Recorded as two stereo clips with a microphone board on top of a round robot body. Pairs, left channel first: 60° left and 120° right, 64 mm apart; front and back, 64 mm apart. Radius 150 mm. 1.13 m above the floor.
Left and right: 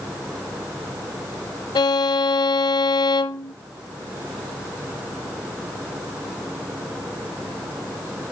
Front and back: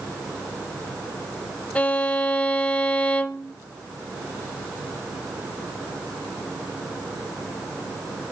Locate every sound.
1.8 s a violin: 70° left, 0.8 m